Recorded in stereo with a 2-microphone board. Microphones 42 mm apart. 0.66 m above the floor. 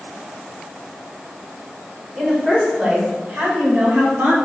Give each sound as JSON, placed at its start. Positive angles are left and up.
{"t": 2.2, "sound": "a woman speaking", "side_deg": -10, "distance_m": 2.5}